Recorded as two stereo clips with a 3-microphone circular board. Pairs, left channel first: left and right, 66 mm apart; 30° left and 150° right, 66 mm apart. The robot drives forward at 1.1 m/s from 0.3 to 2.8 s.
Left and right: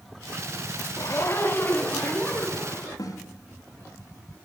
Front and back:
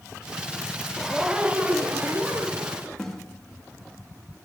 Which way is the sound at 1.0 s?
120° left.